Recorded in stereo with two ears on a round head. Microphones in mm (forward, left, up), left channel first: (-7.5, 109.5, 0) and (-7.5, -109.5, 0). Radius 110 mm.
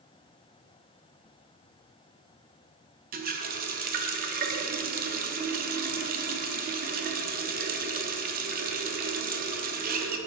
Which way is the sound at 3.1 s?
35° right (ahead or behind).